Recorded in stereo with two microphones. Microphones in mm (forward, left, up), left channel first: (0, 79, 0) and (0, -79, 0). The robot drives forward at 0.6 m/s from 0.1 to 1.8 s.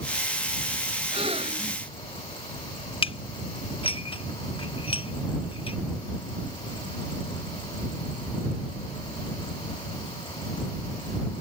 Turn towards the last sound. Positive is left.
turn(degrees=35)  # may be behind; listen again after turning